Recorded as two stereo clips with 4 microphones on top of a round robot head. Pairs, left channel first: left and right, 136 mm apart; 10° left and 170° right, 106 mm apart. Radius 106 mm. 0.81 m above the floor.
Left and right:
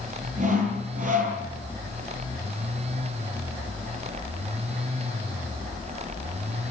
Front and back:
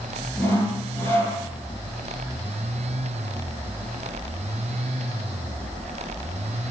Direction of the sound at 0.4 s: 60° right.